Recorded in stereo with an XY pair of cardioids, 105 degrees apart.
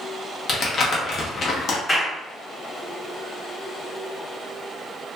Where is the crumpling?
45° left, 0.8 m.